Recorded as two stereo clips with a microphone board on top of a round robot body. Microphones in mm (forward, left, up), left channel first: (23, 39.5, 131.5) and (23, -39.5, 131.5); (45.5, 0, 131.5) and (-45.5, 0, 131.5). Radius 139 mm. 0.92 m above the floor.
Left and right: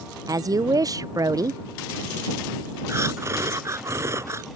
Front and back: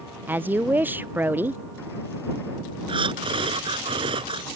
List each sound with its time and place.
0.3 s a woman speaking: 115° right
2.9 s breathing: 150° right